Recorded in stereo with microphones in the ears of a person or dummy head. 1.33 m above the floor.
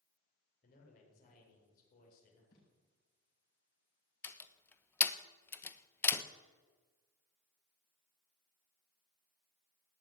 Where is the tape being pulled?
50° left (ahead or behind), 7.5 m.